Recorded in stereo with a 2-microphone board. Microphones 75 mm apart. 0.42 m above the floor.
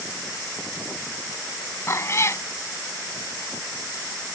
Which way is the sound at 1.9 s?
40° left (ahead or behind).